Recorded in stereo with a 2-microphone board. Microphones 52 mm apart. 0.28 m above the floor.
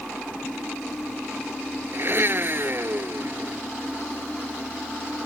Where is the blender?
50° right (ahead or behind).